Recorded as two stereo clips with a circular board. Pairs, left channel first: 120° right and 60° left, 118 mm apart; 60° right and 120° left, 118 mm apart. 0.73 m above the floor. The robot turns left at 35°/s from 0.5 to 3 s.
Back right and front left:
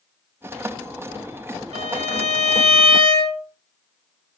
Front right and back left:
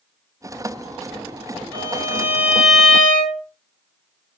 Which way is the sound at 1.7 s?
65° left.